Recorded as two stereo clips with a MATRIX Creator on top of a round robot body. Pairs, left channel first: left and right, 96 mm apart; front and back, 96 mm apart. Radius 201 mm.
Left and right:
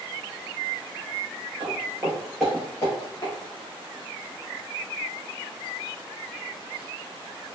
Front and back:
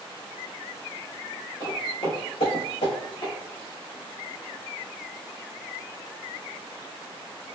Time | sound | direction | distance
1.6 | footsteps | 50° right | 0.8 m